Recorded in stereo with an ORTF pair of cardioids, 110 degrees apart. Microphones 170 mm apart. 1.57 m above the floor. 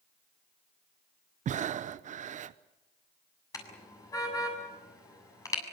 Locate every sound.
1.4 s breathing: 45° right, 0.9 m
3.5 s a car horn: 20° left, 7 m